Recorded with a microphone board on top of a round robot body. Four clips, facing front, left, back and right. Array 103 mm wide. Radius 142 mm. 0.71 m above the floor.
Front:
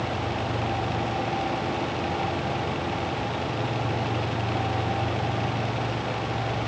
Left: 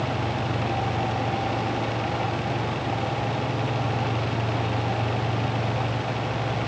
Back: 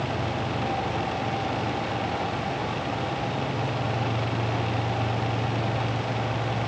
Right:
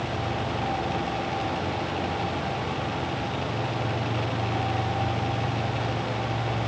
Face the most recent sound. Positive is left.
No sound to turn to.